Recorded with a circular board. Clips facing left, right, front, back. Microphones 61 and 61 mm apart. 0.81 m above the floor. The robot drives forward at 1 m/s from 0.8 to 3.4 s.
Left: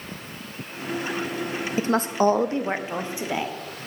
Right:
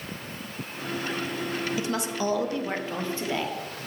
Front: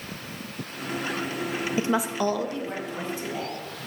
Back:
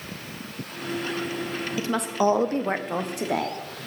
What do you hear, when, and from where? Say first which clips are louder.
1.8 s a woman speaking: left 7 dB, back 1 dB; 50° left, 0.6 m; by 3.6 s 165° left, 1.5 m